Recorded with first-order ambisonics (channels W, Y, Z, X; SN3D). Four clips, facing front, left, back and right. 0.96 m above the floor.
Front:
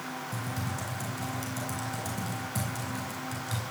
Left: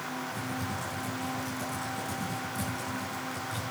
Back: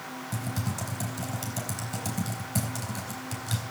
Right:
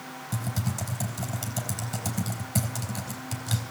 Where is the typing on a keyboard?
125° right, 4.5 m.